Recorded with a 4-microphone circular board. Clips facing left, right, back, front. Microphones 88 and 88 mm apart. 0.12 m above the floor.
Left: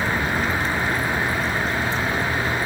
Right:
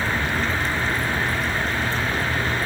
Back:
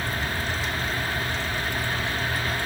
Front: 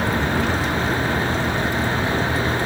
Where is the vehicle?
10° left; by 2.7 s 5° left.